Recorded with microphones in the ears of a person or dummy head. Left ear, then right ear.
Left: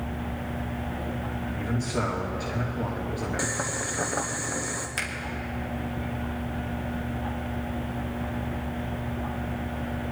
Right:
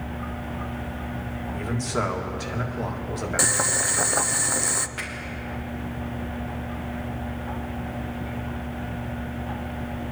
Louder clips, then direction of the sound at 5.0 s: Left 2 dB; 75° left (ahead or behind).